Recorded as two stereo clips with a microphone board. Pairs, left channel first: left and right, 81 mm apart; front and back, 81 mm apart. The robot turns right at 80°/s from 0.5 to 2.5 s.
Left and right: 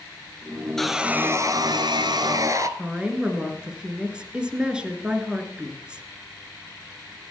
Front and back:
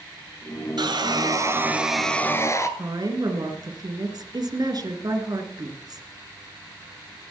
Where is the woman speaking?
165° right, 2 m.